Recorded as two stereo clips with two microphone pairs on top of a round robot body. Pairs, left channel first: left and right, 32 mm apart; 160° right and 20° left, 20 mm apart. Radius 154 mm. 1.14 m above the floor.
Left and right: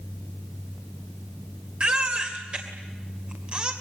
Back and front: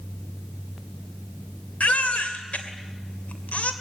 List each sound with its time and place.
1.8 s a baby crying: 145° right, 2.5 m